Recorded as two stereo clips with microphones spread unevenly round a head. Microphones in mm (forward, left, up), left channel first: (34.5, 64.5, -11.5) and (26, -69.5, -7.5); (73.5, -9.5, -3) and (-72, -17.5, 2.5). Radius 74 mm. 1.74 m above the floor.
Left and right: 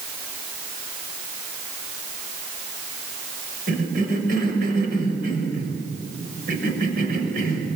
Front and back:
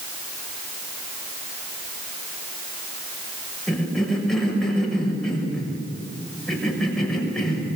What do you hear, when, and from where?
3.7 s a cough: 85° right, 6.5 m